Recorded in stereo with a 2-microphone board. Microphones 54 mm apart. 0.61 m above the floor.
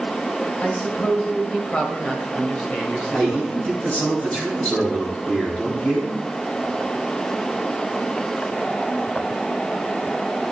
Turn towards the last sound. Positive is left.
turn(degrees=25)  # may be behind; listen again after turning